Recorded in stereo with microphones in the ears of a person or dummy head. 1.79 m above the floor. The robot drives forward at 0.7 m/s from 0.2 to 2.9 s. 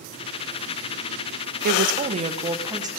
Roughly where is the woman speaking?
Right.